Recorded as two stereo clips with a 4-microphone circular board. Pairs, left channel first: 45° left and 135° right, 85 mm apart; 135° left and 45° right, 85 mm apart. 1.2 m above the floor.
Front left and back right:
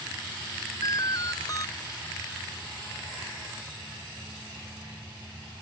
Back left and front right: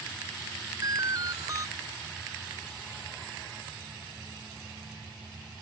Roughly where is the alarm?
Ahead.